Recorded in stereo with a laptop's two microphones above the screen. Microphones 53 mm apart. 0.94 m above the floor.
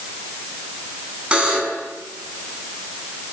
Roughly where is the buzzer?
Right.